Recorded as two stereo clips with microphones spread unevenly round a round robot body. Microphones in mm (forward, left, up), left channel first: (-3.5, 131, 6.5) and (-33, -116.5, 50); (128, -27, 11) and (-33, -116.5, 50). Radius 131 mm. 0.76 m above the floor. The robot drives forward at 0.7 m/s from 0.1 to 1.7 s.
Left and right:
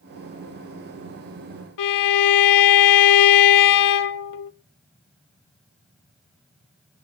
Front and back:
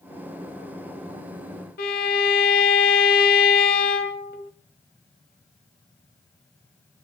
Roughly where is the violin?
Left.